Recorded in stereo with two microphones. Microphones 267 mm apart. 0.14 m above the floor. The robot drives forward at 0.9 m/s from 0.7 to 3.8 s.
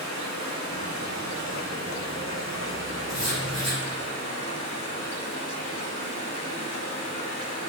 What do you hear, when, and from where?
0.0 s running water: 80° left, 5.5 m; by 7.7 s 60° left (ahead or behind), 6.5 m
3.1 s writing: 70° left (ahead or behind), 7 m; by 3.8 s 75° left (ahead or behind), 7 m